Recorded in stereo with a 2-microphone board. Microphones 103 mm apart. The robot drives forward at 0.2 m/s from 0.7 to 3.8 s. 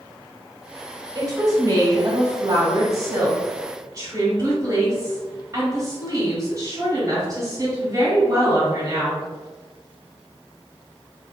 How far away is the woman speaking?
About 1.4 m.